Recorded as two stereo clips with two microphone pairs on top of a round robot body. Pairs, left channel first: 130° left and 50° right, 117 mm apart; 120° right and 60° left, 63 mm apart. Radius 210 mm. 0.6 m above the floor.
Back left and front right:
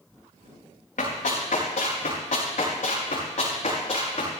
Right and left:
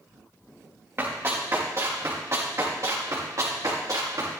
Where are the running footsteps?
115° left, 5.5 m; by 4.3 s 90° left, 6.5 m.